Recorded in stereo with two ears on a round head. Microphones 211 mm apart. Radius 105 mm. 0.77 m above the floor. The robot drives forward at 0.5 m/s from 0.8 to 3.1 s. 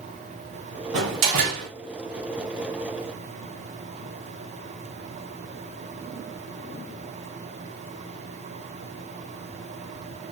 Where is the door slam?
50° right (ahead or behind), 1.0 m; by 1.7 s 65° right (ahead or behind), 0.8 m.